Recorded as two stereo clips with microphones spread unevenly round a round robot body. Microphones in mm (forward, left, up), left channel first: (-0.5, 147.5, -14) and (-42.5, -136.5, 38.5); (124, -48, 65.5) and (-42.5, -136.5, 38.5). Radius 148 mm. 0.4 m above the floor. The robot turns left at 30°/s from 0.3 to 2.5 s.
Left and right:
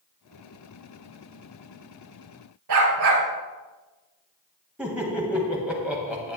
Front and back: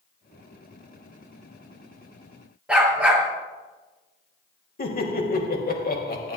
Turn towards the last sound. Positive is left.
turn(degrees=-10)